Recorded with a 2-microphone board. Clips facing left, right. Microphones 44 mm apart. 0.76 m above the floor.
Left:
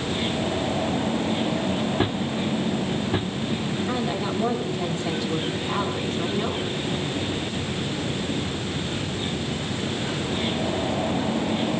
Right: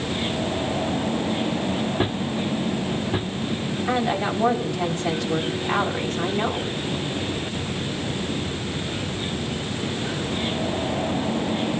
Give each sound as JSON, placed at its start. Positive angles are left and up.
{"t": 3.9, "sound": "a woman speaking", "side_deg": -70, "distance_m": 4.0}